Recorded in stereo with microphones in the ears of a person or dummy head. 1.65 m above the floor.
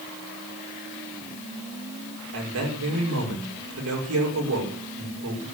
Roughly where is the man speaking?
Right.